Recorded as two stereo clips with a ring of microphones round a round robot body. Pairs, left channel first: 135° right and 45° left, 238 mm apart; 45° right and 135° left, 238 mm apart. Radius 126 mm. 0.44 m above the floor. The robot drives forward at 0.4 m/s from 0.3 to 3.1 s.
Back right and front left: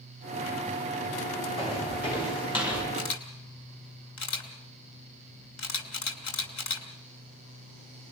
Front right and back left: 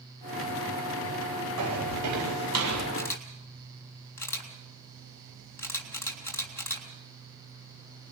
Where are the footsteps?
155° left, 9.5 m; by 2.8 s 150° left, 9 m.